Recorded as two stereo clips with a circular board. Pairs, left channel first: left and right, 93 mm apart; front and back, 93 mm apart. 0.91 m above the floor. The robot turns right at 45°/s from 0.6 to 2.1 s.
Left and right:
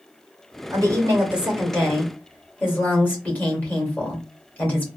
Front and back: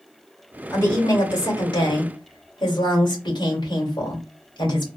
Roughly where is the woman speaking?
Ahead right.